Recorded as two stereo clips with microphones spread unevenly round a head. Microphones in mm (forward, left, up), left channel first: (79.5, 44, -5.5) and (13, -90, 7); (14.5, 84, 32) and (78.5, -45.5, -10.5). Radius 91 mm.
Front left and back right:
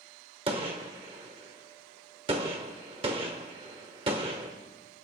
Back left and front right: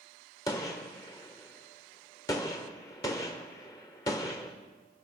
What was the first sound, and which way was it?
A gunshot, 175° right.